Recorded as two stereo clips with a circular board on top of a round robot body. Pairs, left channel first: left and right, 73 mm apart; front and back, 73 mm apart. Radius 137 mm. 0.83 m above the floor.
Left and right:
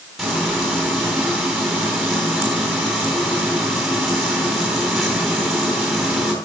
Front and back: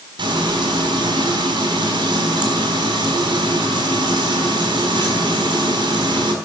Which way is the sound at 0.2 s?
Straight behind.